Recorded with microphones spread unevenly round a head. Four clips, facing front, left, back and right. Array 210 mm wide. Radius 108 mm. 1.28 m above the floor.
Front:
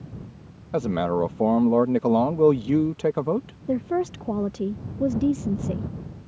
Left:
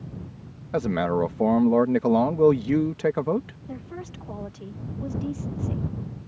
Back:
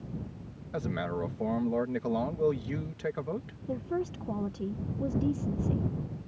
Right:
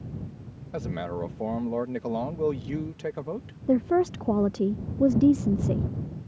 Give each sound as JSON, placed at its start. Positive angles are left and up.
{"t": 0.7, "sound": "a man speaking", "azimuth_deg": 45}
{"t": 3.7, "sound": "a woman speaking", "azimuth_deg": -60}